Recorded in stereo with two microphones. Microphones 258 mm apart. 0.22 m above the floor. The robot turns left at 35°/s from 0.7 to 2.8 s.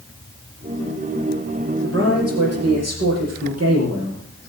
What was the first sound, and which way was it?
A man speaking, 55° right.